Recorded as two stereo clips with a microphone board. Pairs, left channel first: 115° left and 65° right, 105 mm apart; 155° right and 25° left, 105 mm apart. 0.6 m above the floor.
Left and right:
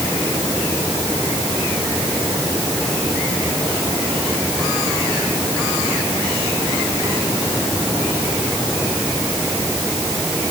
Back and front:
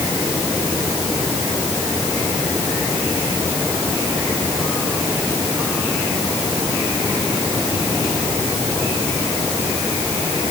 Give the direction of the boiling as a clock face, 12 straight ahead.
I don't hear boiling.